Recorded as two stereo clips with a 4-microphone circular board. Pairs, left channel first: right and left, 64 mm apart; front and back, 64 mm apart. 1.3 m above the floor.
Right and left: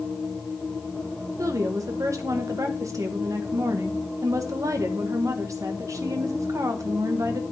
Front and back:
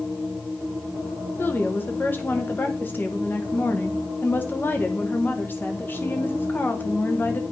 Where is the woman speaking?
60° left, 1.3 m.